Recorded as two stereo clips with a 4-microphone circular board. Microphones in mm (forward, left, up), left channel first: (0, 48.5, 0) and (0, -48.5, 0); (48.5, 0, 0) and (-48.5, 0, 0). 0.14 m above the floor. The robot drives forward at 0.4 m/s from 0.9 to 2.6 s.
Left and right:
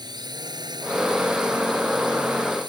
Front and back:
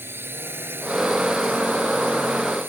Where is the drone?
115° right.